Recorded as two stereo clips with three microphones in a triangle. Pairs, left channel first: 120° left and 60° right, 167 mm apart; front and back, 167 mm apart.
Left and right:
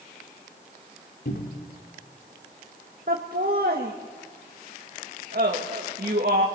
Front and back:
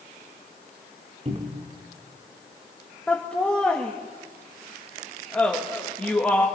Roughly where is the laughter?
Right.